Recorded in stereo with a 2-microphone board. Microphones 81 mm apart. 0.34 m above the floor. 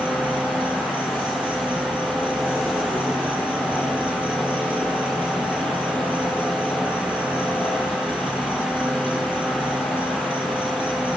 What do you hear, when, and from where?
0.0 s an insect: 15° right (ahead or behind), 3 m